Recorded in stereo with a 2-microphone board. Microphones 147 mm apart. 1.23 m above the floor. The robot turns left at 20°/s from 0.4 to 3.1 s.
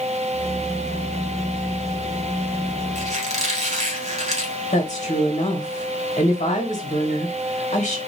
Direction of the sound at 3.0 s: 45° right (ahead or behind).